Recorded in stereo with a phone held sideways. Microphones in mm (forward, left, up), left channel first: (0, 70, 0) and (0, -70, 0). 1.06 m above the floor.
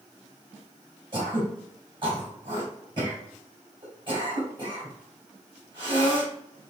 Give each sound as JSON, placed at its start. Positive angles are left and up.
{"t": 1.1, "sound": "throat clearing", "side_deg": -40, "distance_m": 2.5}